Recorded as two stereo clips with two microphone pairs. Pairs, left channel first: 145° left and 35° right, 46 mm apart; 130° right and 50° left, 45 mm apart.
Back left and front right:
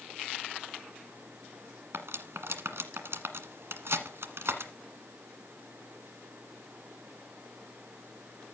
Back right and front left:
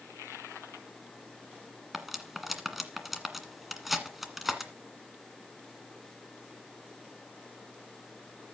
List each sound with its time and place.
1.9 s cutlery clinking: 35° right, 1.5 m